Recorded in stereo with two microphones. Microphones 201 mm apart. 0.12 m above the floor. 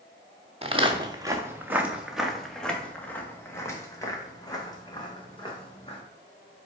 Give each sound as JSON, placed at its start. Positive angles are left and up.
{"t": 0.6, "sound": "footsteps", "side_deg": -30, "distance_m": 1.4}